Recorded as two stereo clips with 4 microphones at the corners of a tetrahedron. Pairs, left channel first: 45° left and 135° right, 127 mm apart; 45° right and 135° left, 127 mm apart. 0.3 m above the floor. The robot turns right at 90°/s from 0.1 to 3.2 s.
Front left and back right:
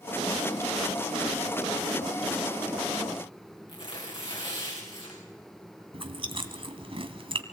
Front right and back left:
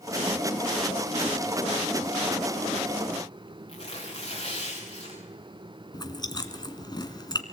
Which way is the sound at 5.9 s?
95° right.